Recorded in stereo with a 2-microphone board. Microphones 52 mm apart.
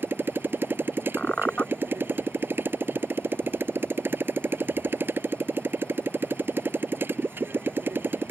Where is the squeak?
30° left (ahead or behind).